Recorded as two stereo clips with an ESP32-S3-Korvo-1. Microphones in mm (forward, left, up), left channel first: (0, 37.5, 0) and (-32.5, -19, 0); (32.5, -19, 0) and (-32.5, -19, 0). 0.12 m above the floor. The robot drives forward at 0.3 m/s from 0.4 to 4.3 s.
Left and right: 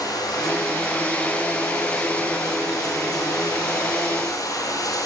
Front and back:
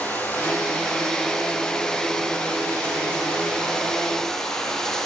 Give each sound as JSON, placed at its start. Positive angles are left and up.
{"t": 0.0, "sound": "running water", "azimuth_deg": 60, "distance_m": 4.0}